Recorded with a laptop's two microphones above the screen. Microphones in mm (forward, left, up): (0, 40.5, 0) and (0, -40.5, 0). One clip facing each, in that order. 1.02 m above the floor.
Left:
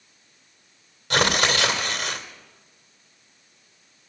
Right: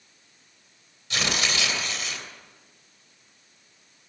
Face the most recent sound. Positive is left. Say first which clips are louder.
# left 7 dB
turn(degrees=65)  # may be behind; listen again after turning